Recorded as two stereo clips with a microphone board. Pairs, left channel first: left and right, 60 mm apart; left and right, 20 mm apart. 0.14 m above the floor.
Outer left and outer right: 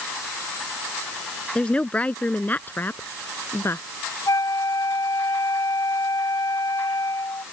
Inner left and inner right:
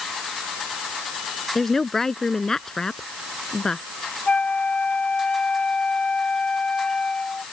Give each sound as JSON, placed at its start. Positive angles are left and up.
{"t": 1.6, "sound": "a woman speaking", "side_deg": 15}
{"t": 4.3, "sound": "a flute", "side_deg": 80}